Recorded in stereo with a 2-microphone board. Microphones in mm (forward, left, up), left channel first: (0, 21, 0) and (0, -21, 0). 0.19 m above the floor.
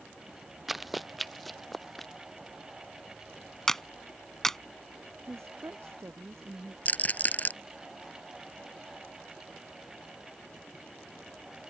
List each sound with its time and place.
0.7 s running footsteps: 5° right (ahead or behind); by 2.1 s 5° left (ahead or behind)
3.7 s a clap: 10° left (ahead or behind)
5.3 s a woman speaking: 80° right
6.8 s a rattle: 40° left (ahead or behind)